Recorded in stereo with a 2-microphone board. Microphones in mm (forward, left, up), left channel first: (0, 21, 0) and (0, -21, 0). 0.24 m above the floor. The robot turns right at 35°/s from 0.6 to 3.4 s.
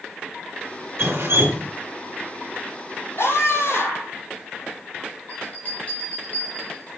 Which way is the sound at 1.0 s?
75° right (ahead or behind).